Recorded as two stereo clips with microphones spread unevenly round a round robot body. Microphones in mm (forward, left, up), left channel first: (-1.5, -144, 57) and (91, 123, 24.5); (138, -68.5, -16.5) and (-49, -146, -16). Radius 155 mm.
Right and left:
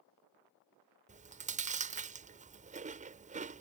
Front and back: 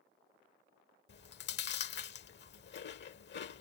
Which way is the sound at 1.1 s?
15° left.